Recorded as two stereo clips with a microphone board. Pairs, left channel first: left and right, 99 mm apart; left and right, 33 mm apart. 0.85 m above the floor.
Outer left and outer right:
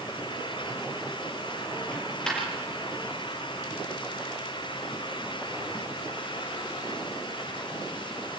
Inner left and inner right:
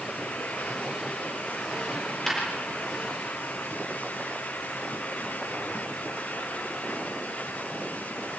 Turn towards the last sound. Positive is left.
turn(degrees=5)  # may be behind; listen again after turning